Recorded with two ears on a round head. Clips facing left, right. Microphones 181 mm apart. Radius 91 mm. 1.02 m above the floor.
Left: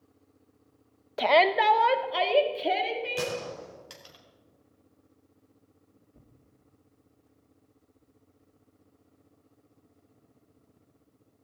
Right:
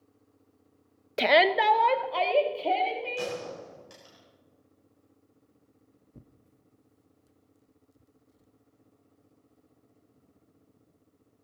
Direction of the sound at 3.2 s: 65° left (ahead or behind).